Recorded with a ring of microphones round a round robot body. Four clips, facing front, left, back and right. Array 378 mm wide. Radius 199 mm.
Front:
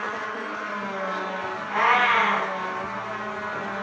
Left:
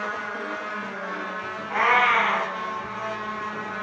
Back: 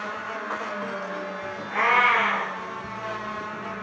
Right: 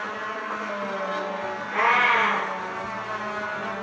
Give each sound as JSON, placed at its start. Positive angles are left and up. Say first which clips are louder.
{"t": 1.7, "sound": "a cat meowing", "louder": "left 1 dB, front 1 dB", "azimuth_deg": 40, "distance_m": 3.0}